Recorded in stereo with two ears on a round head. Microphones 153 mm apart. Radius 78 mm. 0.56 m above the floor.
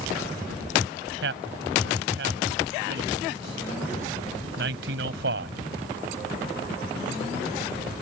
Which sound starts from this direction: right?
A man speaking, at 1.2 s.